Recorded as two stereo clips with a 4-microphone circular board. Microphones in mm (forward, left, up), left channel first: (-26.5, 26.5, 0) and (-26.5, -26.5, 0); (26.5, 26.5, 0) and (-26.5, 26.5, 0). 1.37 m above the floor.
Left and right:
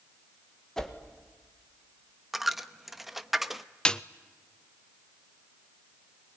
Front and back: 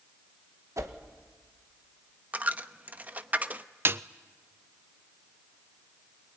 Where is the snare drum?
160° left, 0.5 m.